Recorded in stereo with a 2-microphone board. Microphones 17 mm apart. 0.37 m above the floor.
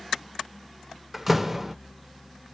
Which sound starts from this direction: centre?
A door slam, at 1.1 s.